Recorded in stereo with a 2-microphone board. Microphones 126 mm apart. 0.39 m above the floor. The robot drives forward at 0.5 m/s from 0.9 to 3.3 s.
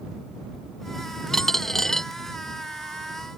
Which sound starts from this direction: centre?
A dropped coin, at 1.3 s.